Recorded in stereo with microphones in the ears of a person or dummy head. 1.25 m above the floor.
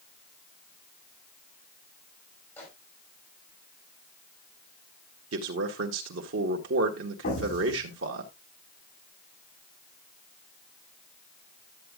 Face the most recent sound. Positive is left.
turn(degrees=50)  # may be behind; listen again after turning